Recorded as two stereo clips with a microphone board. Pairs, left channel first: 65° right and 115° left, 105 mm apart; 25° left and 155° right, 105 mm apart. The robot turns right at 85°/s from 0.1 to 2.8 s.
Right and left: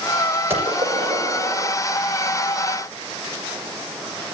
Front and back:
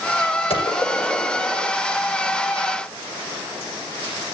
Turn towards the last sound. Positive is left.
turn(degrees=-120)